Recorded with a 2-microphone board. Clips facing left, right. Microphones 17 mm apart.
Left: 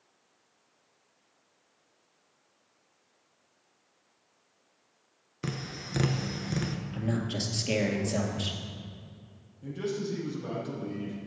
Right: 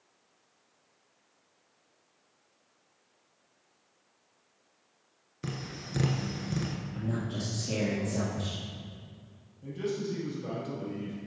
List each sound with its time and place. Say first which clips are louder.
5.4 s tapping: left 2 dB; 20° left (ahead or behind), 0.9 m
6.9 s a man speaking: left 4 dB; 55° left (ahead or behind), 2 m
9.6 s a man speaking: even; 10° left (ahead or behind), 3.5 m